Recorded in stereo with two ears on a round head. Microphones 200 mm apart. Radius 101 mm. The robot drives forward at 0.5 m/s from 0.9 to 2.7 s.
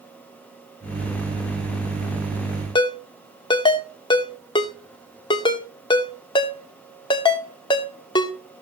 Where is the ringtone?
20° left (ahead or behind), 1.1 m.